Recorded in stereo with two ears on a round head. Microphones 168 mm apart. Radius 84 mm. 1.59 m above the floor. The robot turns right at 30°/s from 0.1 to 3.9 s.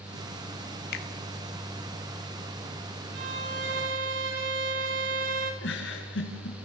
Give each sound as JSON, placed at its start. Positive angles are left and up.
{"t": 0.9, "sound": "a finger snap", "side_deg": 55, "distance_m": 1.8}
{"t": 3.1, "sound": "a violin", "side_deg": -50, "distance_m": 4.0}
{"t": 5.6, "sound": "a giggle", "side_deg": 70, "distance_m": 4.0}